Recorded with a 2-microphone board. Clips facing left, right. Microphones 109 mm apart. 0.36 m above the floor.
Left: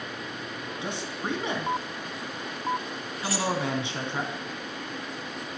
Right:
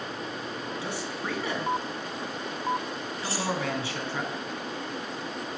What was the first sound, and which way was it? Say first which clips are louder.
A man speaking: left 4 dB; 20° left (ahead or behind).